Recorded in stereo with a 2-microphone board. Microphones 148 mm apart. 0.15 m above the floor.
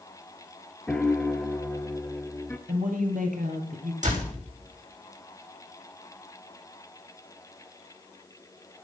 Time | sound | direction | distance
0.9 | a piano | 5° left (ahead or behind) | 1.0 m
2.7 | a woman speaking | 70° right (ahead or behind) | 3 m
4.0 | a door slam | 60° right (ahead or behind) | 6.5 m